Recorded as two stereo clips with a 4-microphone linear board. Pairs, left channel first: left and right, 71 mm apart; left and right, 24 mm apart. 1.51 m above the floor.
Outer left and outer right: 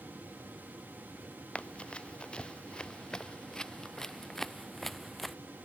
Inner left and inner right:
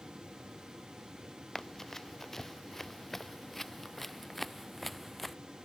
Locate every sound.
1.6 s running footsteps: 15° left (ahead or behind); by 5.4 s centre (ahead or behind)